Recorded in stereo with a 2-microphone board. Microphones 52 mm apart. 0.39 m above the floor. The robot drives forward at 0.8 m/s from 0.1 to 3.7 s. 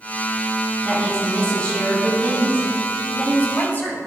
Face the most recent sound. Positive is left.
turn(degrees=40)  # may be behind; listen again after turning